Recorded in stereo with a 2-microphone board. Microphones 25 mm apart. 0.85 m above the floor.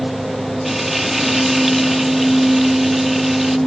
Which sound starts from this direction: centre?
Frying, at 0.7 s.